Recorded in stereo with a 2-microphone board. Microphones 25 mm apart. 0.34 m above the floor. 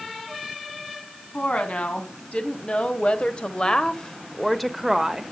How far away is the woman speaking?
About 2.5 m.